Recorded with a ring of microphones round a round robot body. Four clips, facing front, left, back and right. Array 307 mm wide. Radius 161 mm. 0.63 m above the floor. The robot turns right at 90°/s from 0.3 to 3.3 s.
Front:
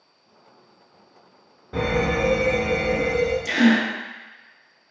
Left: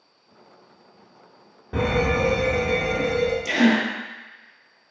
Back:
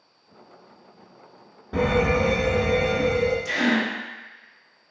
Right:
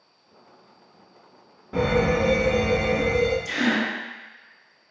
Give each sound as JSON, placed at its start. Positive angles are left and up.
{"t": 1.7, "sound": "a fire alarm", "azimuth_deg": 125, "distance_m": 1.5}
{"t": 3.5, "sound": "a gasp", "azimuth_deg": 60, "distance_m": 0.6}